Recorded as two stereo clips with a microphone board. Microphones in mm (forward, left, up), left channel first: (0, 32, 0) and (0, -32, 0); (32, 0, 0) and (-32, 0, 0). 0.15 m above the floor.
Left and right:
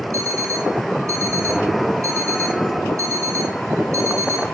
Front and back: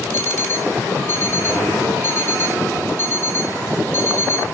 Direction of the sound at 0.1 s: 55° right.